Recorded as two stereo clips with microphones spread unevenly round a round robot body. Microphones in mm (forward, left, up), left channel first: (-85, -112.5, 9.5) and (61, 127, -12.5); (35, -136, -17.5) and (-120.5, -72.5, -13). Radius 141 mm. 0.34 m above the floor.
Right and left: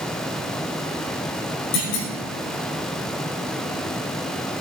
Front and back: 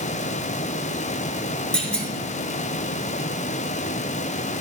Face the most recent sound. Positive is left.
turn(degrees=-105)